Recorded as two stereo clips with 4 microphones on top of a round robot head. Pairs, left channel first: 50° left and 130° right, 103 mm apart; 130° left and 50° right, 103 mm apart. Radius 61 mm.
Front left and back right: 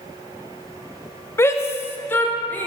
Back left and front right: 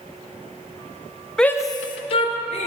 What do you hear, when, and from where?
1.4 s a shout: 55° left, 0.5 m; by 2.7 s 125° left, 1.5 m